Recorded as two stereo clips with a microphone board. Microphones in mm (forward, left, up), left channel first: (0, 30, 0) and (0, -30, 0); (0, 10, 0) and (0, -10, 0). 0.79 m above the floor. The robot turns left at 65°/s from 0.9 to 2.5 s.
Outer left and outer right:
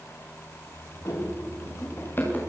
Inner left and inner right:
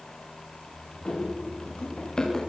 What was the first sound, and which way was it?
Running footsteps, 65° left (ahead or behind).